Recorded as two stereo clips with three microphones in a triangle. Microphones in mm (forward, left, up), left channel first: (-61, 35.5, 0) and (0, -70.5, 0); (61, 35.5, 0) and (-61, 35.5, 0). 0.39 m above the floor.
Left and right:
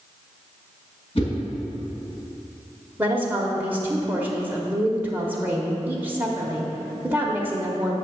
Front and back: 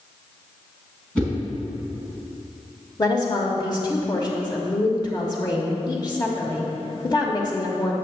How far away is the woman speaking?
About 0.9 m.